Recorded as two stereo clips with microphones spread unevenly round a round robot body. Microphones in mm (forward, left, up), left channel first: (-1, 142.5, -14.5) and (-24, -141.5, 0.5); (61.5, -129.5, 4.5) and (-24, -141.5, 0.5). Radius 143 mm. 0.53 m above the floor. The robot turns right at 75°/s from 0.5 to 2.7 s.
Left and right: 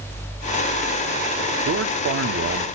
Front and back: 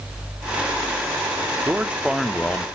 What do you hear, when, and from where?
1.6 s a man speaking: 125° right, 0.8 m; by 2.6 s 50° right, 0.8 m